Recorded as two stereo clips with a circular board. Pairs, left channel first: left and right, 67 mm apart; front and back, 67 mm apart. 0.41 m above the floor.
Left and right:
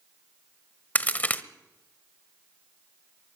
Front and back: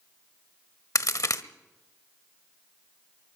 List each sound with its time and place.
0.9 s a crack: 30° left, 1.0 m